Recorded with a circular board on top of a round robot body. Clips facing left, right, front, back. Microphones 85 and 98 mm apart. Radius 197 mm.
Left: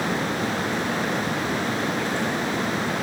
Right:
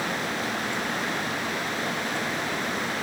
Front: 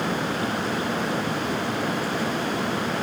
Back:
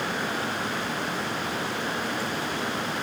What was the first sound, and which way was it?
Only background noise.